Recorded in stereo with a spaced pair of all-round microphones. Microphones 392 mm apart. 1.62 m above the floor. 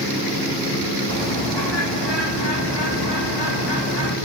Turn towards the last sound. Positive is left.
turn(degrees=85)